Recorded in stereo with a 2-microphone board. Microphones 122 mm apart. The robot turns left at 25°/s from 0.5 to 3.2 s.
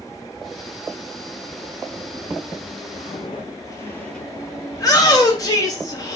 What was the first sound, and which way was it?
Footsteps, 55° left (ahead or behind).